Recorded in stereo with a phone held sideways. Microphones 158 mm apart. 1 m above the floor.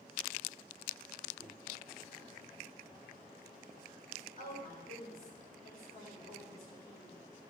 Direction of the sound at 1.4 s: 50° left (ahead or behind).